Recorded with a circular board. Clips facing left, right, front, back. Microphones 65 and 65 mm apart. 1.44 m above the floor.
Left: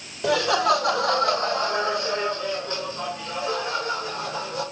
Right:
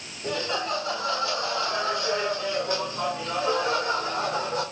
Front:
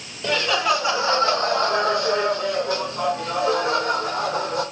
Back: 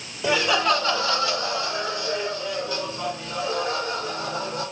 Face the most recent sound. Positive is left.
turn(degrees=-25)